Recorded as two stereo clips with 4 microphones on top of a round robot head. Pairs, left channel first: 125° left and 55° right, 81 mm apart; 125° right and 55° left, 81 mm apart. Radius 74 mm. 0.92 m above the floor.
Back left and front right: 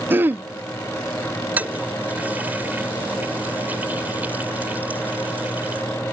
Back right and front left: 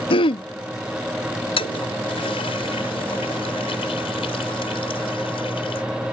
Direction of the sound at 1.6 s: 125° right.